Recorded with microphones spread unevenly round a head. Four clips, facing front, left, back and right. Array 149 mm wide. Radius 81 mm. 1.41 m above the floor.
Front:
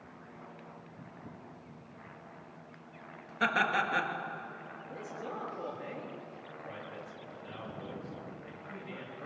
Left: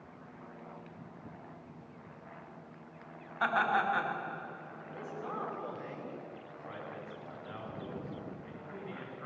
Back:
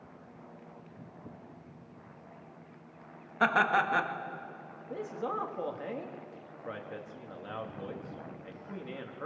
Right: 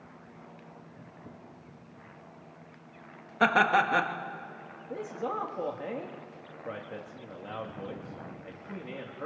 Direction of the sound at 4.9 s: 130° right.